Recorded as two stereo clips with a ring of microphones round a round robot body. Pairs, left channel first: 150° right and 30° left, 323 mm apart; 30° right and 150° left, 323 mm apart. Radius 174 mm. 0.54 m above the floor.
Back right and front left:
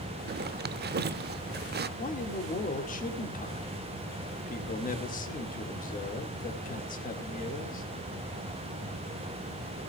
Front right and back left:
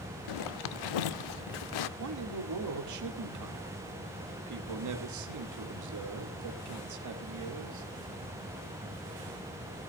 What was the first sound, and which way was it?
A zipper, 30° right.